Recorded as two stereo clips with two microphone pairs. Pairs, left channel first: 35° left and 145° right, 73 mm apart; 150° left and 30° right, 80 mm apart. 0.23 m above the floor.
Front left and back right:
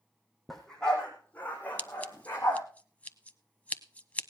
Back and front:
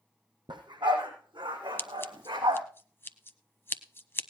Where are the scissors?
100° left, 0.8 m.